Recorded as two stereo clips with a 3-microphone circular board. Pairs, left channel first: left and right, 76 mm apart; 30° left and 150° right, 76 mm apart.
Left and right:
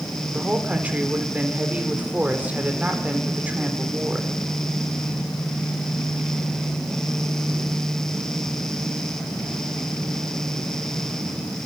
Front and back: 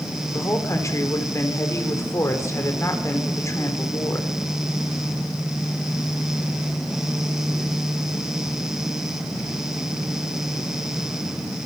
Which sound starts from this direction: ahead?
A woman speaking, at 0.3 s.